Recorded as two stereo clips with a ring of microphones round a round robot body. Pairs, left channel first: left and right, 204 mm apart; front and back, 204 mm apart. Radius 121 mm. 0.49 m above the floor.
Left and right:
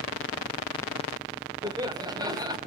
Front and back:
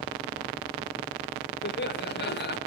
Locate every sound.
1.6 s laughter: 20° right, 1.8 m